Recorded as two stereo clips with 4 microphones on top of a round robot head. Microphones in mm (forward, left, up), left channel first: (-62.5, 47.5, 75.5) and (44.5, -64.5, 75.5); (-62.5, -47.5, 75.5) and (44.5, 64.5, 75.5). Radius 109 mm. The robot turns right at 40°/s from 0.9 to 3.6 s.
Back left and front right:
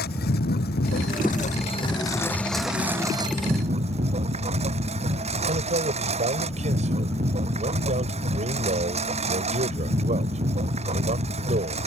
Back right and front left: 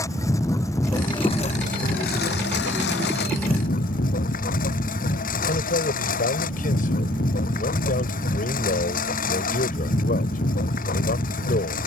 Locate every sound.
0.0 s a lawn mower: 155° left; by 11.9 s 95° right
5.5 s a man speaking: 95° right